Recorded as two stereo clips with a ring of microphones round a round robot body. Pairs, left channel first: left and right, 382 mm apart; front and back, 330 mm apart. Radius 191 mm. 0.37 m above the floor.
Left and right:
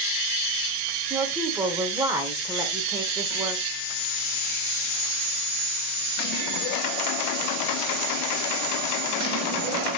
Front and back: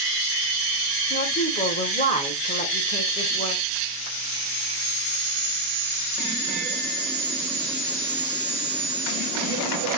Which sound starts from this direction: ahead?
A woman speaking, at 1.1 s.